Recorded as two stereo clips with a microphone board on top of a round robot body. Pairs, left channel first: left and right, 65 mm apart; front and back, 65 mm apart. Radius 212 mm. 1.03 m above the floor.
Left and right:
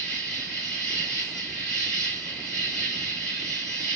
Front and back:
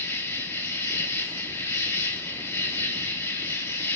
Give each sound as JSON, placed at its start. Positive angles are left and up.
{"t": 0.0, "sound": "an insect", "azimuth_deg": 10, "distance_m": 2.5}